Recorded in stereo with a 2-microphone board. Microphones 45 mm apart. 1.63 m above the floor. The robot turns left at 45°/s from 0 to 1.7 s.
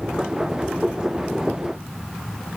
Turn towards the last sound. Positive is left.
No sound to turn to.